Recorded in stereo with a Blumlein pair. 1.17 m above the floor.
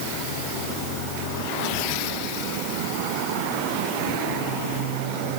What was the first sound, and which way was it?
Only background noise.